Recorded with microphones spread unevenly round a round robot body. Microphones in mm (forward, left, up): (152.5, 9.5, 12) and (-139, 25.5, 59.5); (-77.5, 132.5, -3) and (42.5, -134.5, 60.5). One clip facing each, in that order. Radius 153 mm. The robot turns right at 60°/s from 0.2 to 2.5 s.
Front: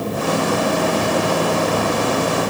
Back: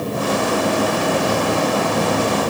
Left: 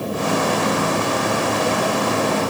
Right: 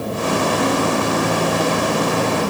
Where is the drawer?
No drawer in this recording.